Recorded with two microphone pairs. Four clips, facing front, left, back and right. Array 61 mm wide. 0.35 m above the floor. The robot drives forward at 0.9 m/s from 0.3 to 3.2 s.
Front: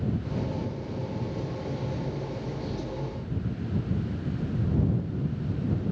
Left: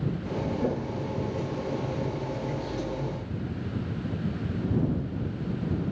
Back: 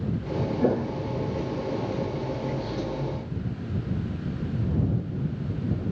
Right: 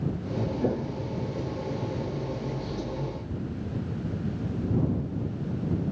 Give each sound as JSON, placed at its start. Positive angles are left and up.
{"t": 0.6, "sound": "footsteps", "azimuth_deg": -170}